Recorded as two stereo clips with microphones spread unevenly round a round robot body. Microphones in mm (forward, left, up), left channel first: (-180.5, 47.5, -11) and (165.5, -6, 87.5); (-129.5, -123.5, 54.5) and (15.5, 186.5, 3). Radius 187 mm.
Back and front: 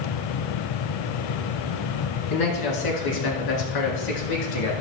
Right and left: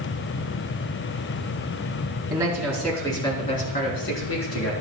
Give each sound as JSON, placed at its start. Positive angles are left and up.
{"t": 2.3, "sound": "a man speaking", "azimuth_deg": 145, "distance_m": 4.0}